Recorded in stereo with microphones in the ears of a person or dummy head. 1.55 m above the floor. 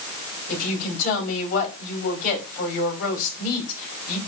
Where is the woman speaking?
50° left (ahead or behind), 5.5 m.